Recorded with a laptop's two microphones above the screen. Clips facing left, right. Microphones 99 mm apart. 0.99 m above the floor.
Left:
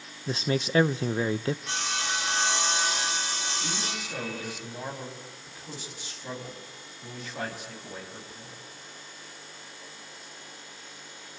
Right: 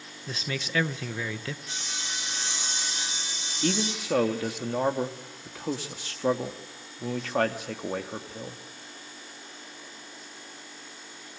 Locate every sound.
0.3 s a man speaking: 30° left (ahead or behind), 0.6 m
1.7 s sawing: 75° left (ahead or behind), 2 m
3.6 s a man speaking: 70° right (ahead or behind), 2 m